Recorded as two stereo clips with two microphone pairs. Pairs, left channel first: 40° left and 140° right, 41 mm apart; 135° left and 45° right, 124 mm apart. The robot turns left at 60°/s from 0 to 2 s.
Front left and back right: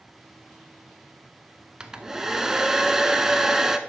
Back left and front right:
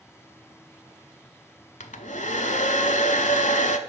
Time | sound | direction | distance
1.8 | a hair dryer | 155° left | 0.6 m